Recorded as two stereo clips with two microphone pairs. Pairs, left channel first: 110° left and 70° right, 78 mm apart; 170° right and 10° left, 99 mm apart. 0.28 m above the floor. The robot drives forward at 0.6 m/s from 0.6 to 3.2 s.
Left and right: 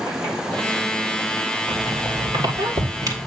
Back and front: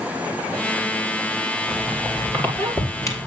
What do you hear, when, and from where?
1.7 s a squeak: 95° right, 3 m; by 3.3 s 110° right, 3 m